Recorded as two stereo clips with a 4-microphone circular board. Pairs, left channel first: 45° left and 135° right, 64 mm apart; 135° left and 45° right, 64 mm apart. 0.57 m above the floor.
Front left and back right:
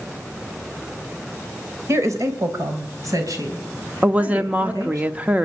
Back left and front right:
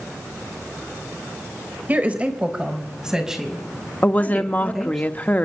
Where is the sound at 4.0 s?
175° left, 0.8 m.